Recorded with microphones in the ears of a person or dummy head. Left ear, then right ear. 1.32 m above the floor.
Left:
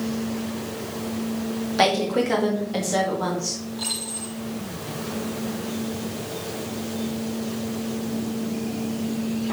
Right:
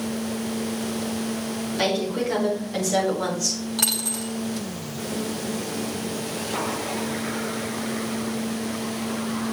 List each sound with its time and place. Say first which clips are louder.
1.8 s a woman speaking: left 4 dB; 30° left (ahead or behind), 2 m; by 3.6 s 30° right (ahead or behind), 2 m
3.8 s a dropped coin: right 7 dB; 55° right (ahead or behind), 1.6 m